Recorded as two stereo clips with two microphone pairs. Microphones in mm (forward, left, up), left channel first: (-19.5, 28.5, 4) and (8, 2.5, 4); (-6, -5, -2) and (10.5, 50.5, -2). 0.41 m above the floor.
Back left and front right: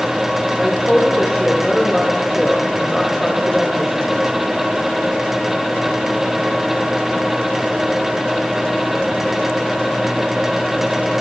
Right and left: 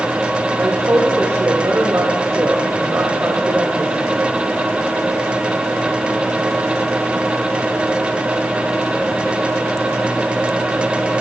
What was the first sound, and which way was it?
A woman speaking, 50° left.